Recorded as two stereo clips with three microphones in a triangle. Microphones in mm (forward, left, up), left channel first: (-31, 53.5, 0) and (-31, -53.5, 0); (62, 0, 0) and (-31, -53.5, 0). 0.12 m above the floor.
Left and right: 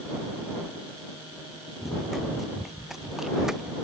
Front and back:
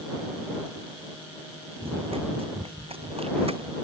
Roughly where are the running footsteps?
Behind.